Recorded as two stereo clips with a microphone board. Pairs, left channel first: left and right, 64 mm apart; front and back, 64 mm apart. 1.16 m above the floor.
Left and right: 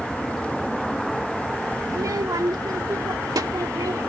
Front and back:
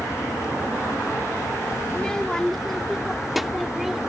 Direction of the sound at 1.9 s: 70° right.